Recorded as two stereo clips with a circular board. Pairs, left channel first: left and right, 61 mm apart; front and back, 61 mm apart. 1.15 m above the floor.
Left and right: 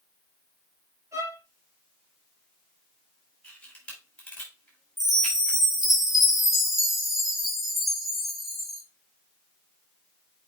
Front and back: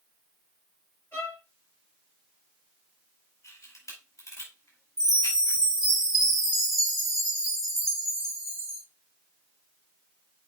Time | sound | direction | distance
1.1 | a violin | 55° right | 3.5 m
3.4 | a camera shutter | 20° left | 4.5 m
5.0 | a chime | straight ahead | 2.5 m